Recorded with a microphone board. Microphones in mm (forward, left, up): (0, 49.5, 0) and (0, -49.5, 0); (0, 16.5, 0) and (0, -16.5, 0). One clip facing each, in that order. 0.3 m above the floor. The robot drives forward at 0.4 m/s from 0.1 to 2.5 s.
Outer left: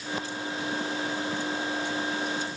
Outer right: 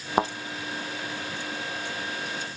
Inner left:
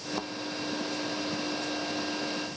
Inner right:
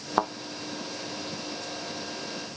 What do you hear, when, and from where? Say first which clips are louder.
0.2 s a thud: outer right 11 dB, inner right 13 dB; 60° right (ahead or behind)